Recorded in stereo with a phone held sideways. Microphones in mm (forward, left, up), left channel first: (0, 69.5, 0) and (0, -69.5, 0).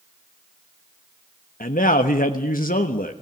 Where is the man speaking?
80° left, 1.1 m.